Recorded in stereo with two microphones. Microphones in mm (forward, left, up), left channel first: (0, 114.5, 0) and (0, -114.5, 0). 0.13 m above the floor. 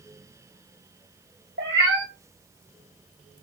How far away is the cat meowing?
About 0.8 m.